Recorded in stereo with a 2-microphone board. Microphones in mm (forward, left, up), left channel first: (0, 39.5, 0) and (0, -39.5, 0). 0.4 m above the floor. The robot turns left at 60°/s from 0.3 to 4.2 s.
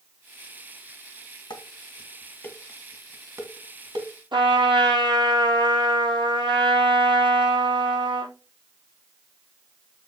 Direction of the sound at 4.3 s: 80° right.